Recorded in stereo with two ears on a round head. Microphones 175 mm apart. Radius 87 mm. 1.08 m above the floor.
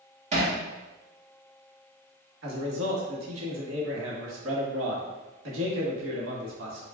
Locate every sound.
0.3 s hammering: 35° right (ahead or behind), 1.2 m
2.4 s a man speaking: 75° right (ahead or behind), 1.3 m